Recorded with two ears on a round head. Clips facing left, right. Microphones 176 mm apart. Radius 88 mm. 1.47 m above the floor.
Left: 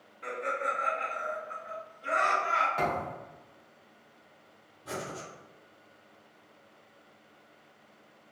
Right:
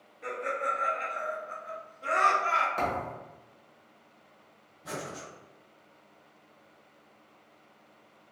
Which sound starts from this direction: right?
Breathing, at 4.8 s.